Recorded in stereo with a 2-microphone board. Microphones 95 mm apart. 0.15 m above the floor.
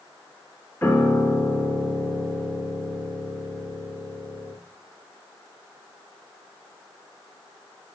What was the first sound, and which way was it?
A piano, 20° left (ahead or behind).